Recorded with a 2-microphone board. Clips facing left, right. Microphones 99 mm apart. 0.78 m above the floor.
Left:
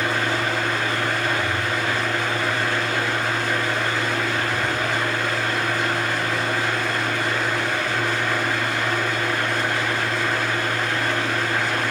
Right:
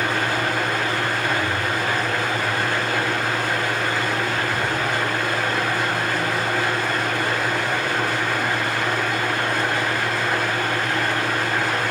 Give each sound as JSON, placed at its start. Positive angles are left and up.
{"t": 0.0, "sound": "an engine running", "side_deg": -65, "distance_m": 4.0}